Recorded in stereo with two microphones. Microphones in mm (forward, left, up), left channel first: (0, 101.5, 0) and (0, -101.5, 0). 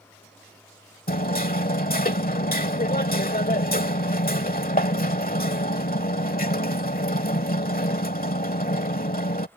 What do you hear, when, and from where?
1.1 s hammering: 40° left (ahead or behind)